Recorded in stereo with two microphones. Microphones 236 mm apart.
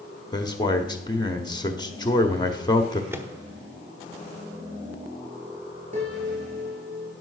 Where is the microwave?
10° right (ahead or behind), 0.9 m.